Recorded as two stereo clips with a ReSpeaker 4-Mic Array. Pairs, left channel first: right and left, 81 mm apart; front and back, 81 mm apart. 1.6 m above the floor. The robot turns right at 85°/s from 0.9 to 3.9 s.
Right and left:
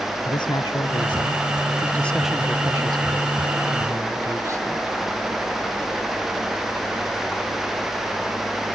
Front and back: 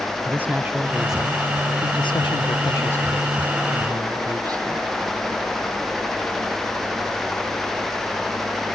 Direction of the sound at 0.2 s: 115° right.